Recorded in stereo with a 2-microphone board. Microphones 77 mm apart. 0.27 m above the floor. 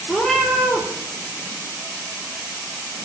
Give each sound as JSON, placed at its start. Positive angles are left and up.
{"t": 0.1, "sound": "a cat meowing", "side_deg": 5, "distance_m": 1.3}